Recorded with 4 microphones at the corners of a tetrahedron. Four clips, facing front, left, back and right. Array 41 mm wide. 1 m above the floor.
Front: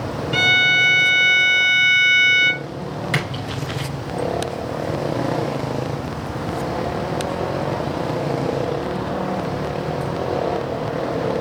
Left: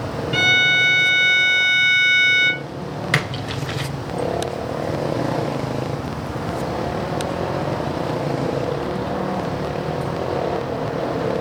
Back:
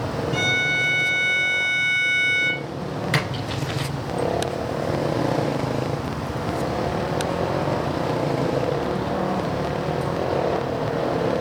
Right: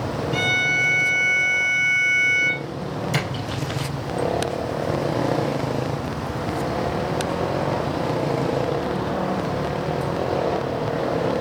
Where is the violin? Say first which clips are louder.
Left 5 dB, front 7 dB; 40° left, 0.7 m.